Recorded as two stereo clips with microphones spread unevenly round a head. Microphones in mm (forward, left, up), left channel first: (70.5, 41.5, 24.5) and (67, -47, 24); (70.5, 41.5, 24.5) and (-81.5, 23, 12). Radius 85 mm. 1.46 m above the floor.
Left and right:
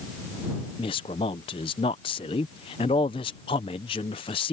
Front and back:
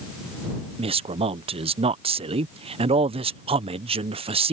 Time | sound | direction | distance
0.8 | a man speaking | 135° left | ?